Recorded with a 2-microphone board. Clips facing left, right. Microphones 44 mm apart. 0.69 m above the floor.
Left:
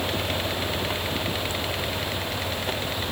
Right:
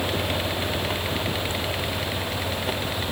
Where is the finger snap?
I don't hear a finger snap.